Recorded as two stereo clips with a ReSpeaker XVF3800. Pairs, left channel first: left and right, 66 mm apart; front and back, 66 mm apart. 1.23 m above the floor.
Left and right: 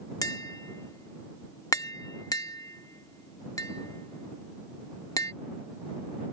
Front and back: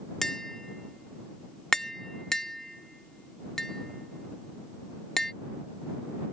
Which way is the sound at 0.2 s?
80° left.